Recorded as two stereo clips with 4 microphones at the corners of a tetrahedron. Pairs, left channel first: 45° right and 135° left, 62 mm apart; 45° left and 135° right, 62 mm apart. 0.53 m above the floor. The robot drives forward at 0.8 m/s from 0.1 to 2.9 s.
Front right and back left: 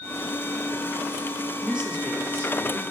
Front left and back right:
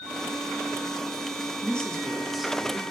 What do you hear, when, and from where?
1.6 s a woman speaking: 75° left, 1.2 m; by 2.8 s 155° left, 1.5 m